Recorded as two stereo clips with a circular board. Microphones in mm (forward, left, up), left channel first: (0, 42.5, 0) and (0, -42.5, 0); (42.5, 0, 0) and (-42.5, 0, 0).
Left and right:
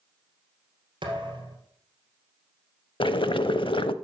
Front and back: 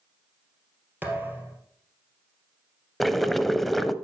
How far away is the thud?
About 2.5 m.